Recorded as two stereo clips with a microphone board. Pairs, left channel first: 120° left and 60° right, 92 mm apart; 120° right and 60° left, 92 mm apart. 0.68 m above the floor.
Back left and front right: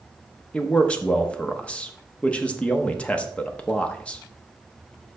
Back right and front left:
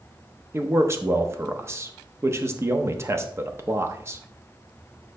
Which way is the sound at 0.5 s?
55° left.